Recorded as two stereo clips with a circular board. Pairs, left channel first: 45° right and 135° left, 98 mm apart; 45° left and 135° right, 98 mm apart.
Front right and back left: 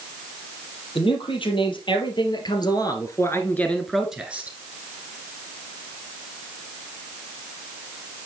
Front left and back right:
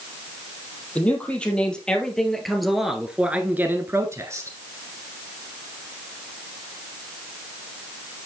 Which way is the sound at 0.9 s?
30° right.